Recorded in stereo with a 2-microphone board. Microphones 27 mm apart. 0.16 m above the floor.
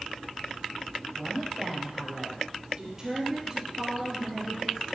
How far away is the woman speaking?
About 4.5 m.